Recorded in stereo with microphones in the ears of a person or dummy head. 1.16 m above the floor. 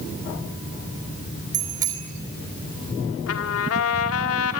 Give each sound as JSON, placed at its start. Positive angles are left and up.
{"t": 1.5, "sound": "a bicycle bell", "side_deg": -15, "distance_m": 3.0}
{"t": 3.3, "sound": "a trumpet", "side_deg": 80, "distance_m": 1.8}